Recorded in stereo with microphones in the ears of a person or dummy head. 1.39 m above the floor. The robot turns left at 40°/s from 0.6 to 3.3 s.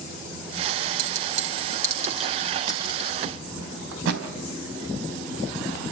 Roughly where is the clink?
Right.